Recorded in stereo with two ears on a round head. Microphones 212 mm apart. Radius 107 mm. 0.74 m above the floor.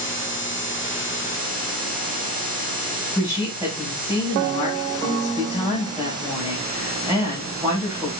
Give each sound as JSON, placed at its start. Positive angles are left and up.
{"t": 3.1, "sound": "a woman speaking", "side_deg": -10, "distance_m": 4.5}